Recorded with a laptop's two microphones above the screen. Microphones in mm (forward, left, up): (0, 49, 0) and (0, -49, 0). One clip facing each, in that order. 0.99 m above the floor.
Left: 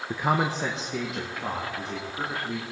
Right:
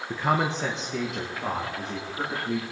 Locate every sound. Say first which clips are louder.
0.1 s a man speaking: even; 10° left (ahead or behind), 0.8 m; by 2.6 s centre (ahead or behind), 3 m